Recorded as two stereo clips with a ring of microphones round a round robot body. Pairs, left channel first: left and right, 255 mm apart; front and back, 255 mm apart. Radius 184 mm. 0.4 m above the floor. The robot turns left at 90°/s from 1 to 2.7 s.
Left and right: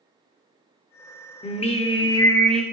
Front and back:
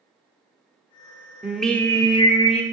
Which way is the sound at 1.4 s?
105° left.